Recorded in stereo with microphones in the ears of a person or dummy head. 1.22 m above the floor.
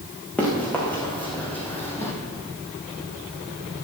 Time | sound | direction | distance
0.4 | running footsteps | 5° left (ahead or behind) | 4 m